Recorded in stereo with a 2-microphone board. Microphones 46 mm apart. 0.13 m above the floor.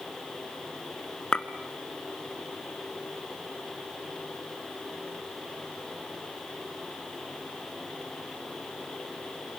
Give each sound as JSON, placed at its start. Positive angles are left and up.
{"t": 1.3, "sound": "a clink", "side_deg": 20, "distance_m": 0.9}